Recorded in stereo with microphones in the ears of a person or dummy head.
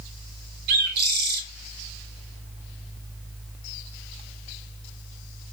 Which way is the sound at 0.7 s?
50° right (ahead or behind).